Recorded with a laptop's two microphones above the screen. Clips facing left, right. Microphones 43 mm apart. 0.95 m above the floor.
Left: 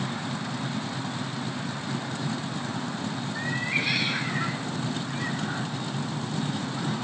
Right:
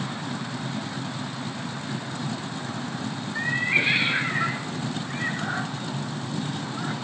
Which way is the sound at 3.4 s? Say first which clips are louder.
Right 6 dB; 25° right (ahead or behind).